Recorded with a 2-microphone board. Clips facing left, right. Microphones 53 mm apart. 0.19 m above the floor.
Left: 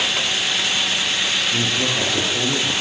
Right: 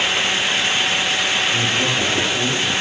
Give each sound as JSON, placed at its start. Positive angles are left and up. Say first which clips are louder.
{"t": 1.5, "sound": "a man speaking", "louder": "right 2 dB", "side_deg": 10, "distance_m": 7.5}